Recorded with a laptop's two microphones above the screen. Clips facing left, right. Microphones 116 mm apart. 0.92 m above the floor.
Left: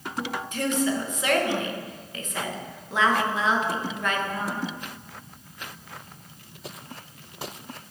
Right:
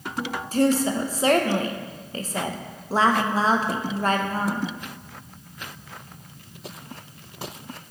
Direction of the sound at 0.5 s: 30° right (ahead or behind).